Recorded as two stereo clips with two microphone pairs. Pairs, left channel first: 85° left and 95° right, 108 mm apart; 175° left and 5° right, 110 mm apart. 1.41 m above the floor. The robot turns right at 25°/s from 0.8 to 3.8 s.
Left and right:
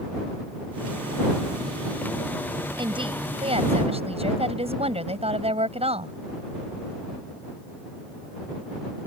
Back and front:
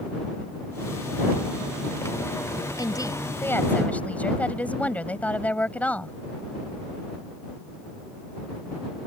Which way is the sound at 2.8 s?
135° right.